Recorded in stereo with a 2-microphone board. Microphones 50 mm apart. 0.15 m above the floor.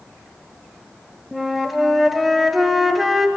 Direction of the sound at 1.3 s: 5° right (ahead or behind).